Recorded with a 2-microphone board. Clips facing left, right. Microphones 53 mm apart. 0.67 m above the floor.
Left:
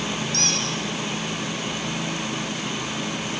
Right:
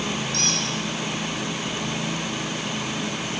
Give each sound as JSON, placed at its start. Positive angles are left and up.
{"t": 0.3, "sound": "a squeak", "side_deg": 45, "distance_m": 7.5}